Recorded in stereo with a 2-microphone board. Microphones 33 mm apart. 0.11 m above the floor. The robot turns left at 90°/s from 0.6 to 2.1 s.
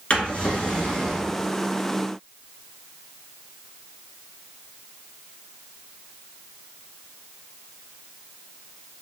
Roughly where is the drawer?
Left.